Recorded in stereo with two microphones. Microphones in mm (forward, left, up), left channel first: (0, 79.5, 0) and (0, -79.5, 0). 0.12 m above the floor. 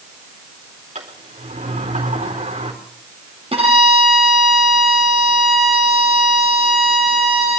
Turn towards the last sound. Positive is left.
turn(degrees=-40)  # may be behind; listen again after turning